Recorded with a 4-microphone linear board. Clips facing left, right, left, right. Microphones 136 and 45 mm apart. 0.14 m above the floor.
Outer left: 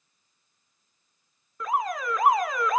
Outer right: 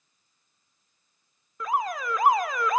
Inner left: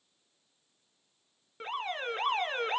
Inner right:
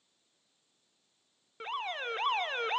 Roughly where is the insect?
No insect in this recording.